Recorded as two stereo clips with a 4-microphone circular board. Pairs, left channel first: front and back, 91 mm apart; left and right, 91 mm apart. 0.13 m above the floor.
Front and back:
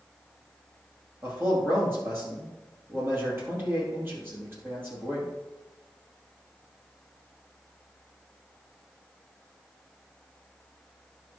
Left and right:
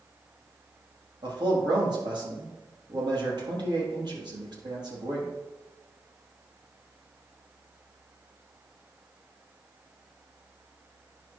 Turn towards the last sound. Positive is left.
turn(degrees=-120)